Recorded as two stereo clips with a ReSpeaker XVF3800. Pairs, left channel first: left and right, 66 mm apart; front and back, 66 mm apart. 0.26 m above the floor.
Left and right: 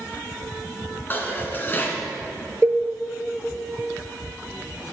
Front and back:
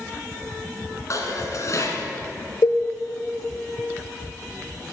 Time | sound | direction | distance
1.1 | dishes clattering | 30° left | 2 m
2.6 | a cowbell | 30° right | 0.8 m